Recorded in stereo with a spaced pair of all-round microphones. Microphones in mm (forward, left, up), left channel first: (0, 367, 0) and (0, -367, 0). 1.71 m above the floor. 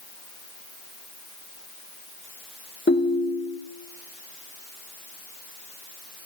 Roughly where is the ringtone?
Centre.